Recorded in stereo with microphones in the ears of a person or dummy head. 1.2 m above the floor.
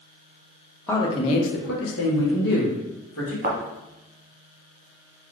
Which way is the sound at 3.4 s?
40° right (ahead or behind).